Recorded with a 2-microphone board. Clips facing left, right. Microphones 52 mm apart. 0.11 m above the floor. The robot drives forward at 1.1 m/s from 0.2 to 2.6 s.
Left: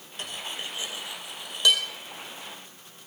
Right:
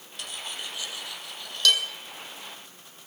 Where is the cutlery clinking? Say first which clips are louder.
Left 1 dB; 30° left (ahead or behind), 1.6 m; by 1.8 s 15° left (ahead or behind), 3 m.